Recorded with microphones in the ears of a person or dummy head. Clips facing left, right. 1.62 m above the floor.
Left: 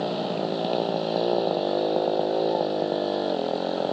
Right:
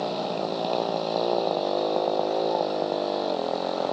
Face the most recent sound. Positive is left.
turn(degrees=15)  # may be behind; listen again after turning